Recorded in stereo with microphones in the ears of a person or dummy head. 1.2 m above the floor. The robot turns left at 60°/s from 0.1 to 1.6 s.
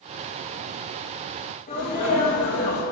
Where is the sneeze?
40° left (ahead or behind), 3 m.